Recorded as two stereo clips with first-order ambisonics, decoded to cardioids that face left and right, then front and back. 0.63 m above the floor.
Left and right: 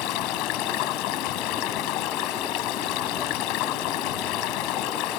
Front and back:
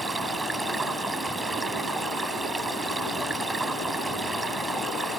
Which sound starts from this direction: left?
Running water, at 0.0 s.